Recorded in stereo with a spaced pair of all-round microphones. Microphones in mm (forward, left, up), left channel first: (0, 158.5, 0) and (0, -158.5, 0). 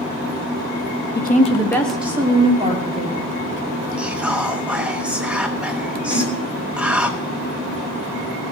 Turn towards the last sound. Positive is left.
turn(degrees=20)  # may be behind; listen again after turning